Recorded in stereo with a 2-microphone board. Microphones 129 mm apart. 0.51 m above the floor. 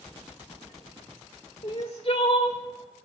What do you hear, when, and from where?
1.6 s crying: 55° left (ahead or behind), 2 m